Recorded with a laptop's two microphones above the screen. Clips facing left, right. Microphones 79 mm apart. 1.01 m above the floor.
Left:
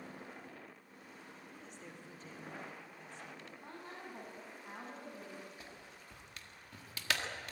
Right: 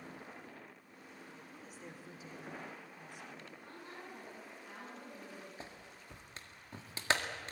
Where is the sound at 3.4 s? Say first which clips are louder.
Left 1 dB; 30° left (ahead or behind), 6.5 m.